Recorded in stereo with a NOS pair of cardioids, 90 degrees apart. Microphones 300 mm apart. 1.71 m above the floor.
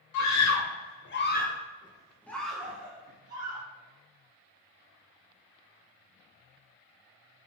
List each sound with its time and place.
0.1 s a scream: 70° left, 1.1 m; by 3.6 s 15° right, 1.8 m